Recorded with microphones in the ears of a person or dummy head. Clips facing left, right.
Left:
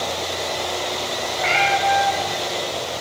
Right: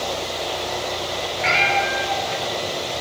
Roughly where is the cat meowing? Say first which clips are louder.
Left 2 dB; centre.